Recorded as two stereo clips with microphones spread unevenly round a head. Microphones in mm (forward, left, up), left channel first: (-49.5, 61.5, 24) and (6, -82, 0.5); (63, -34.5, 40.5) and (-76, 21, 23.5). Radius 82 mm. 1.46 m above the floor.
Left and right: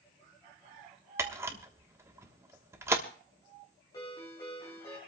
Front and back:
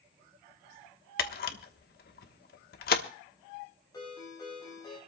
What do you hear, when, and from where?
1.2 s a camera shutter: 10° left, 1.2 m
3.9 s a ringtone: 45° left, 9.5 m